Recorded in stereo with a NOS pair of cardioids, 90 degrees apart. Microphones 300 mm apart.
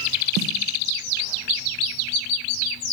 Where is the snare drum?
65° right, 0.7 m.